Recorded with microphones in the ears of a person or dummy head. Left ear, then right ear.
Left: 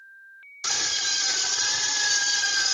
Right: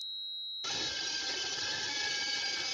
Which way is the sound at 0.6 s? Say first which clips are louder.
Left 12 dB; 60° left (ahead or behind).